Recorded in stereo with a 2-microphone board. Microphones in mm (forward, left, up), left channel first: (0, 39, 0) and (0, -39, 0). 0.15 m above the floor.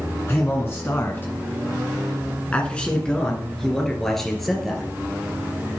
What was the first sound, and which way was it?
A man speaking, 35° left (ahead or behind).